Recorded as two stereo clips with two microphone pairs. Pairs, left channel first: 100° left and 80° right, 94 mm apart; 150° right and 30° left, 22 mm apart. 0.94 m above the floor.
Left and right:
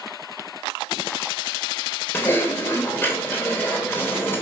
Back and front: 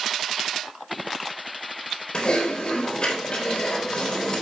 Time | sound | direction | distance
2.1 | typing on a keyboard | 165° left | 3 m